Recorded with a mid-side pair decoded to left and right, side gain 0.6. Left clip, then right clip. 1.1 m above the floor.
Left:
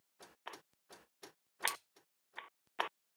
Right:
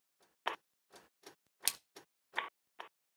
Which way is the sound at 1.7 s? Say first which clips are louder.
Right 3 dB; 35° right.